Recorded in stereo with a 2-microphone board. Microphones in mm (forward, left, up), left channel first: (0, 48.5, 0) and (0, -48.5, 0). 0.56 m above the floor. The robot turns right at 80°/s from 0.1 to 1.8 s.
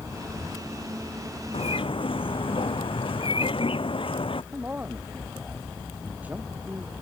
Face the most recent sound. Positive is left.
turn(degrees=-15)  # may be behind; listen again after turning